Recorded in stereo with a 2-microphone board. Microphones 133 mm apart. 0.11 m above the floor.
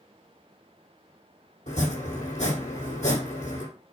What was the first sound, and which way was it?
Chopping, 65° left (ahead or behind).